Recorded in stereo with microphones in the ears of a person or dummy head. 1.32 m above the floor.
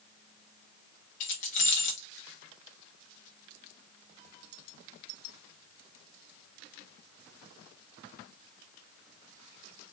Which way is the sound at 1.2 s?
45° left (ahead or behind).